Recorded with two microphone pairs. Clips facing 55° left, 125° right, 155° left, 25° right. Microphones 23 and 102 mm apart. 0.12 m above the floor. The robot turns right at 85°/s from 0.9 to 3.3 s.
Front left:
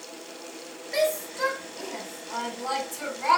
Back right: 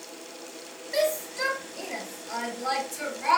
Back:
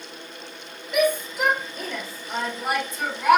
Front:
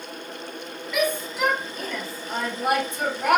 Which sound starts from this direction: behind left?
A shout, at 0.9 s.